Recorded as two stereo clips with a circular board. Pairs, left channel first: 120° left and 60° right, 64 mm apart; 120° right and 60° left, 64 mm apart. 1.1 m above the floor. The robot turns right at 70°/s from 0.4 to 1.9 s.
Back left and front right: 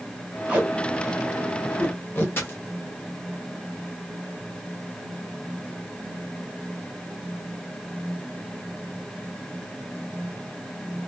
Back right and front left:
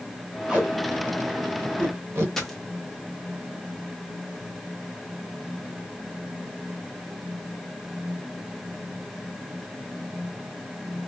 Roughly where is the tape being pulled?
Ahead.